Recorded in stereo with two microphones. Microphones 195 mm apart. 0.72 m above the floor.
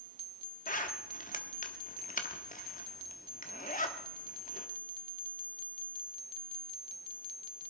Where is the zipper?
45° left (ahead or behind), 1.3 m.